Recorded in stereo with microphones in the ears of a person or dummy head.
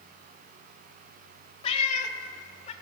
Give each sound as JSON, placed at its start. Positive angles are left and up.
{"t": 1.6, "sound": "a cat meowing", "side_deg": 30, "distance_m": 1.1}